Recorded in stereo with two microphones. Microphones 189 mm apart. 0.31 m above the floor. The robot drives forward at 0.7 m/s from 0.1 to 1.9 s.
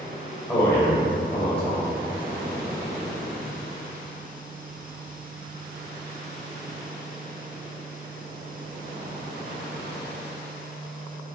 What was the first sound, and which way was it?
A man speaking, 10° left (ahead or behind).